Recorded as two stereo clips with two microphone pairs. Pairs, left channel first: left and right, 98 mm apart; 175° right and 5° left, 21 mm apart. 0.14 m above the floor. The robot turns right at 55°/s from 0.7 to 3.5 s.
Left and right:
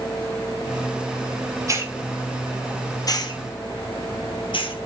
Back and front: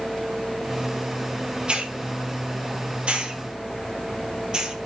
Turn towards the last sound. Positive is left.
turn(degrees=65)